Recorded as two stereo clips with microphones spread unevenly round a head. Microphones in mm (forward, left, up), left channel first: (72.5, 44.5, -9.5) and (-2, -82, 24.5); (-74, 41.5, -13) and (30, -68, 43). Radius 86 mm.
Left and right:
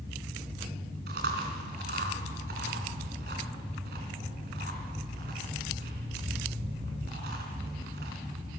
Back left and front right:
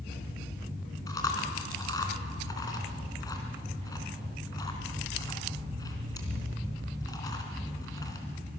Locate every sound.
1.1 s chewing: 155° right, 4 m